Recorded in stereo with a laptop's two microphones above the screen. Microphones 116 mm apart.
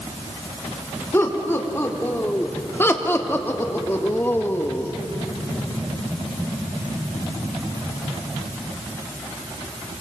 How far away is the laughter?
About 3.5 m.